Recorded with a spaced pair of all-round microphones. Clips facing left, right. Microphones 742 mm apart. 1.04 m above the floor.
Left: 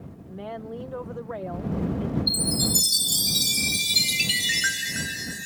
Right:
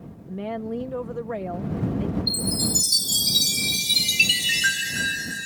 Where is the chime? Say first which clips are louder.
Even; 10° right (ahead or behind).